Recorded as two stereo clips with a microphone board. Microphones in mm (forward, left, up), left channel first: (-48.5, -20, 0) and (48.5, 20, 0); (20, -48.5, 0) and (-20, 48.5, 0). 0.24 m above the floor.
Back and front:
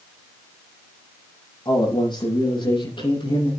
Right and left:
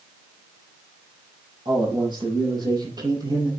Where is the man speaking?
160° left, 9 m; by 3.5 s 165° left, 8 m.